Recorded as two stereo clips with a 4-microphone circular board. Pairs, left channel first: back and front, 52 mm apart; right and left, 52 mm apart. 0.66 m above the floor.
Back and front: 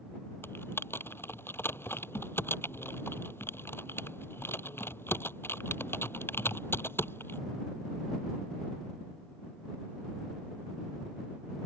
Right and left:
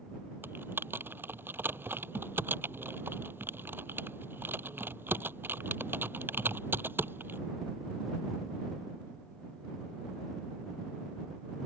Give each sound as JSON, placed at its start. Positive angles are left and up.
{"t": 0.4, "sound": "typing on a keyboard", "azimuth_deg": 140}